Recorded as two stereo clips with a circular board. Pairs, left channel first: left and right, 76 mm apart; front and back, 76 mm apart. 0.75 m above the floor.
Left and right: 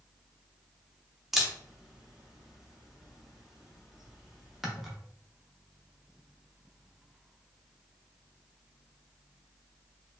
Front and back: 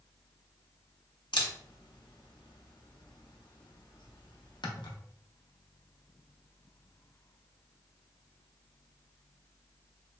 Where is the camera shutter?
5° right, 0.6 m.